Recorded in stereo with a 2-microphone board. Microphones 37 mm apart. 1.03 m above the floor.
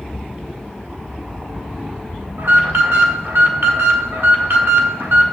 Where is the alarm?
85° right, 1.8 m.